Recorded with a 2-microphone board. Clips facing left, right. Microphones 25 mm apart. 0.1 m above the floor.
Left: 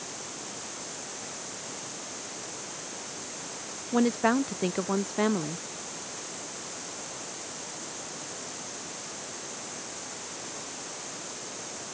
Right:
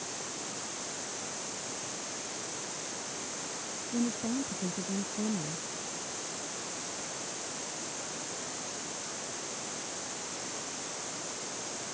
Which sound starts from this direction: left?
A woman speaking, at 3.9 s.